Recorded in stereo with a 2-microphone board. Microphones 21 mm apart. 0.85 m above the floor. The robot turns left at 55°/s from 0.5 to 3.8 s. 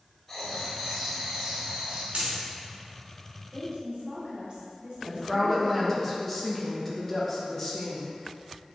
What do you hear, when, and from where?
0.3 s writing: 10° left, 1.2 m; by 2.0 s 75° right, 1.2 m
2.1 s a dropped coin: 75° right (ahead or behind), 1.4 m; by 2.4 s 60° right (ahead or behind), 1.4 m
3.5 s a woman speaking: 35° right (ahead or behind), 1.7 m; by 6.0 s 50° right (ahead or behind), 1.7 m
5.0 s a woman speaking: 15° left (ahead or behind), 0.8 m